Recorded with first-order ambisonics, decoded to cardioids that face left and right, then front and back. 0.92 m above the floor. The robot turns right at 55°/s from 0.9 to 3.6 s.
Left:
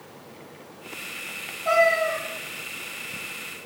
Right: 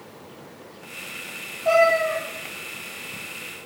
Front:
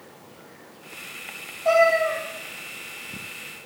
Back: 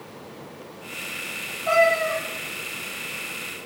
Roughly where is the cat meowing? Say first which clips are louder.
Right 2 dB, front 1 dB; ahead.